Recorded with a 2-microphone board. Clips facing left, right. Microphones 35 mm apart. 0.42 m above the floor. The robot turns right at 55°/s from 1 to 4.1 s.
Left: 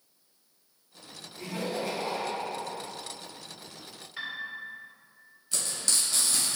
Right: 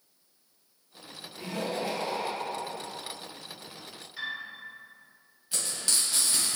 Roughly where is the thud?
No thud in this recording.